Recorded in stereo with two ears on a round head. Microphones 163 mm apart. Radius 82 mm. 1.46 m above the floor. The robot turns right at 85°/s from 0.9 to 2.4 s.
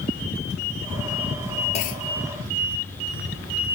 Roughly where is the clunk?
Ahead left.